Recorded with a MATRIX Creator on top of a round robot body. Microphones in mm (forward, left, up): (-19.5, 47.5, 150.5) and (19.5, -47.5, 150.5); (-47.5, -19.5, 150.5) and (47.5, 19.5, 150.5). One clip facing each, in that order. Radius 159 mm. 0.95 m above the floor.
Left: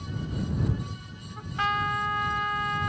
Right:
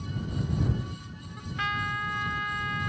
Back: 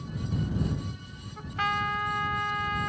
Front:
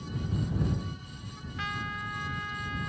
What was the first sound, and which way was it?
A trumpet, 165° left.